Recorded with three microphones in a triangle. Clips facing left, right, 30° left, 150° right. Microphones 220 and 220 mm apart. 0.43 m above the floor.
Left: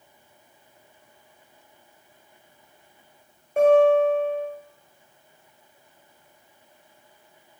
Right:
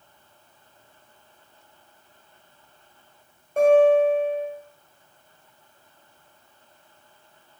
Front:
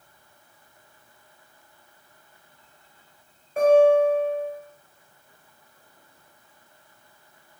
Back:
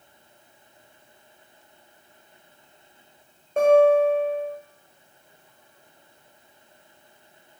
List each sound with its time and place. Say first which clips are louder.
3.6 s a guitar: even, even; 160° left, 1.9 m